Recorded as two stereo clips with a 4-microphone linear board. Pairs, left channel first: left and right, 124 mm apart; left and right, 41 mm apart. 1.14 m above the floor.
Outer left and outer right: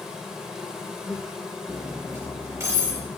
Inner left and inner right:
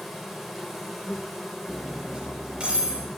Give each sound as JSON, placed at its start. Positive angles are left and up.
{"t": 0.0, "sound": "an insect", "side_deg": -5, "distance_m": 0.9}
{"t": 1.7, "sound": "cutlery clinking", "side_deg": -25, "distance_m": 3.0}